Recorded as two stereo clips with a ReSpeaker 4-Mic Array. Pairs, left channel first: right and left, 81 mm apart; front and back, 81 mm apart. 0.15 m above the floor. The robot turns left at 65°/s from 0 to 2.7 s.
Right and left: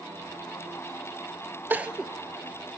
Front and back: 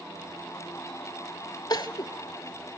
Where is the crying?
25° left, 0.6 m; by 2.1 s straight ahead, 0.6 m.